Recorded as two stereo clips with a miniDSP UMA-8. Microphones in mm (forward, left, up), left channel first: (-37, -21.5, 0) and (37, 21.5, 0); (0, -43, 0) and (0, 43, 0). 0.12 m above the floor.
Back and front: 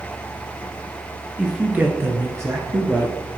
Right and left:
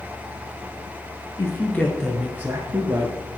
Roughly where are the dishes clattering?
No dishes clattering in this recording.